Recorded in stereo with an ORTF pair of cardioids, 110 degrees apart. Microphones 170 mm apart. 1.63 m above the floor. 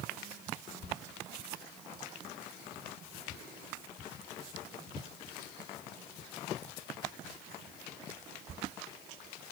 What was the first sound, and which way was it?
Only background noise.